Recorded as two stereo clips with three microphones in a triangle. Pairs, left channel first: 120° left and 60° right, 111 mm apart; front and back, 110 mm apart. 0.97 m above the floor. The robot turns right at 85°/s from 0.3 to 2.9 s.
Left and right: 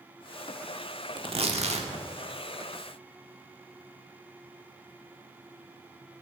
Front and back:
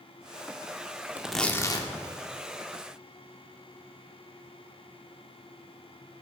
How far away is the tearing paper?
About 1.1 m.